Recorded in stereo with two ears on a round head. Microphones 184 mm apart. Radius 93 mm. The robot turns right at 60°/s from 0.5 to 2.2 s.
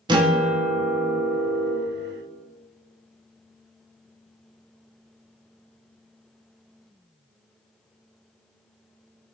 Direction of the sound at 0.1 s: 20° right (ahead or behind).